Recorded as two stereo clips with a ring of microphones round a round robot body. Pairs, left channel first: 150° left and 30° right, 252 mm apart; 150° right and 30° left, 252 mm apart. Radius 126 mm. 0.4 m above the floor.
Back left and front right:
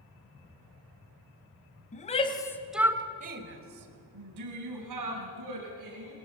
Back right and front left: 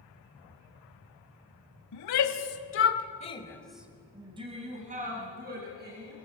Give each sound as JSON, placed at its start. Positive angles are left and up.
{"t": 1.9, "sound": "a shout", "azimuth_deg": -150, "distance_m": 2.5}